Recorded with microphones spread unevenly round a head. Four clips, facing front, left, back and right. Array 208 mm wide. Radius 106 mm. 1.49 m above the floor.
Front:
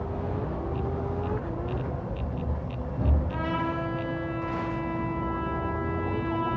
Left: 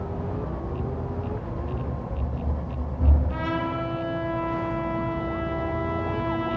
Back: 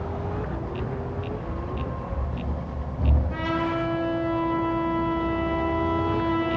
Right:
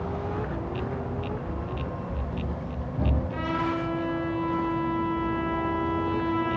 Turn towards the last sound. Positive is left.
turn(degrees=155)